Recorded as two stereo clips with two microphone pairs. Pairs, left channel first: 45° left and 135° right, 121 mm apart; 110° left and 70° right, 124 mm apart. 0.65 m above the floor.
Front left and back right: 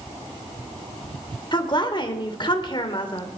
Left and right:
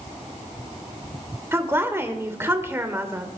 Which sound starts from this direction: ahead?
A woman speaking, at 1.5 s.